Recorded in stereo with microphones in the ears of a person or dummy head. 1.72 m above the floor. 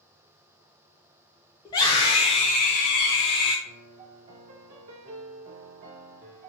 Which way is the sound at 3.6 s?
30° right (ahead or behind).